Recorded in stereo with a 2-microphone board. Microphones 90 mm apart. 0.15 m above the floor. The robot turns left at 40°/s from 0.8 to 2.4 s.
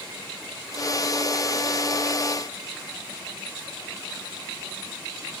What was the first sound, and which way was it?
Only background noise.